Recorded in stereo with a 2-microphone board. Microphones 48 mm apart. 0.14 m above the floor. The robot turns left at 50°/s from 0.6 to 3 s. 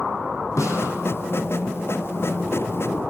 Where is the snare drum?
80° left, 4 m; by 0.9 s 70° left (ahead or behind), 4 m.